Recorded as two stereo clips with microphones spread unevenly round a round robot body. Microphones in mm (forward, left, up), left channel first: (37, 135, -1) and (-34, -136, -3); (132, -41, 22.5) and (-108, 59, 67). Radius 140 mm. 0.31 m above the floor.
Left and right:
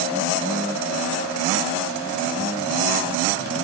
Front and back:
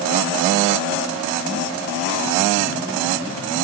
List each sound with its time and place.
Only background noise.